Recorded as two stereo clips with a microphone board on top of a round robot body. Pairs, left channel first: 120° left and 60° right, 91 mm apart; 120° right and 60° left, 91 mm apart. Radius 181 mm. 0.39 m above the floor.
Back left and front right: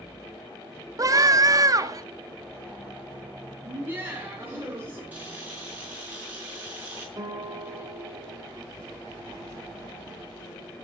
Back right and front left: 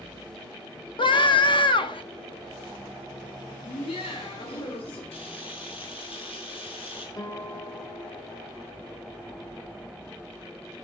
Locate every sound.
1.0 s a scream: 105° right, 1.6 m
3.6 s laughter: 130° right, 3.5 m
5.1 s a camera shutter: 130° right, 5 m
7.2 s a guitar: 95° right, 1.7 m